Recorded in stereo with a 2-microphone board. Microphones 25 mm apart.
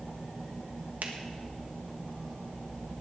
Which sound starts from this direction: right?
A finger snap, at 1.0 s.